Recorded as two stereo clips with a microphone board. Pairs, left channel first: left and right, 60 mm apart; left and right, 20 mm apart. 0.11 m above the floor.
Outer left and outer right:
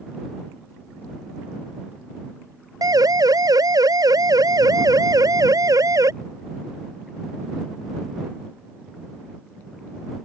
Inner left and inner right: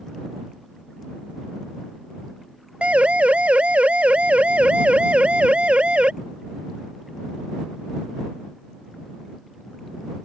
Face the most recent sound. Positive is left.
turn(degrees=-65)  # may be behind; listen again after turning